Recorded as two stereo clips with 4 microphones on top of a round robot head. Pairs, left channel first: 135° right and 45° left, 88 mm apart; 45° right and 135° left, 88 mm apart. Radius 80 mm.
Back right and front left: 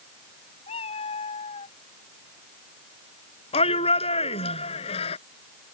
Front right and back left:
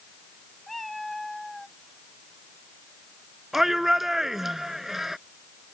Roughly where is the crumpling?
No crumpling in this recording.